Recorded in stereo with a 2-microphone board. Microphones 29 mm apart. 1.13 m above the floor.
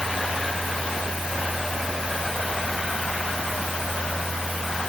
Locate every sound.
Only background noise.